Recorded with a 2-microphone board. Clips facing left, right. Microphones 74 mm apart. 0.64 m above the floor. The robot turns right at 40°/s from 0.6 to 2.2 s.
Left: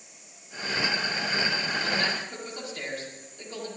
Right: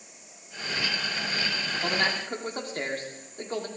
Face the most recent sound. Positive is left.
turn(degrees=-50)  # may be behind; listen again after turning